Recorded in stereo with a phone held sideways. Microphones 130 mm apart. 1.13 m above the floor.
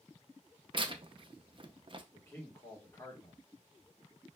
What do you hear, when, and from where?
0.7 s tearing paper: 40° right (ahead or behind), 0.5 m
2.1 s a man speaking: 20° left (ahead or behind), 1.5 m